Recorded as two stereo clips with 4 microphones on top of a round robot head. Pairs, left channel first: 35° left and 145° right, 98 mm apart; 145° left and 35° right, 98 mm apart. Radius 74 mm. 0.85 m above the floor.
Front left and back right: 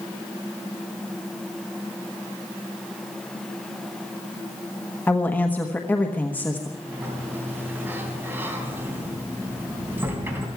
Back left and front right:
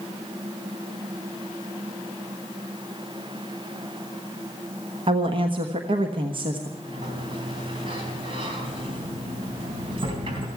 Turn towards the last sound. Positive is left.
turn(degrees=-75)